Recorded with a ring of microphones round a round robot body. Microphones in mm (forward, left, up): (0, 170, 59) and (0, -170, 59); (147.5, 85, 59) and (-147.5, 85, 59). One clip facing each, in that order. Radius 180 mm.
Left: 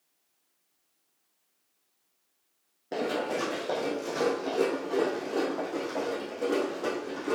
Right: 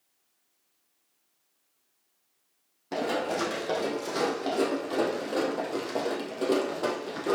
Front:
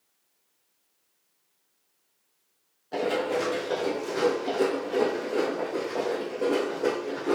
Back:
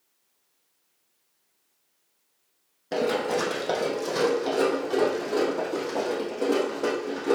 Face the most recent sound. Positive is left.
turn(degrees=-100)